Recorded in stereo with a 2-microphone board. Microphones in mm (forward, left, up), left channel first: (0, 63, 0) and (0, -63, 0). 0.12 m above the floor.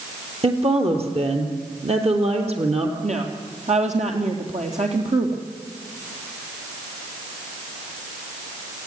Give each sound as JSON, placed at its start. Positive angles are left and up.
{"t": 0.4, "sound": "a woman speaking", "side_deg": -55, "distance_m": 3.0}
{"t": 3.0, "sound": "a woman speaking", "side_deg": -65, "distance_m": 3.0}